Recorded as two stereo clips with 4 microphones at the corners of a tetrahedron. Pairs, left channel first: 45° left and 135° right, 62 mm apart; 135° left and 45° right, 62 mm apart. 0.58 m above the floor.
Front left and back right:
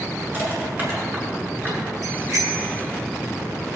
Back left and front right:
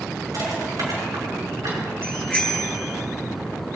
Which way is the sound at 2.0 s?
145° right.